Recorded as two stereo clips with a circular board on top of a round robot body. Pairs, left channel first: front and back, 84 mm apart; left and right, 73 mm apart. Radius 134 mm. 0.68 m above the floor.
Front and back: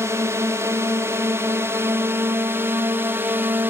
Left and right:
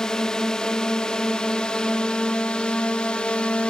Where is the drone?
165° left; by 3.7 s 150° left.